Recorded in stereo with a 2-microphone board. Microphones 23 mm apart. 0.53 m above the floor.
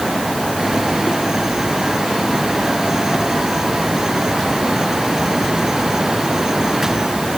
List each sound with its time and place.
Only background noise.